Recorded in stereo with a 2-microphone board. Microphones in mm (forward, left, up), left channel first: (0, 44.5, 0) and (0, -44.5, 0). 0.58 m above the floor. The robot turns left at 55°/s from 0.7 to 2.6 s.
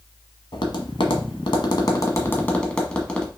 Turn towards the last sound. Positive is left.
turn(degrees=10)  # may be behind; listen again after turning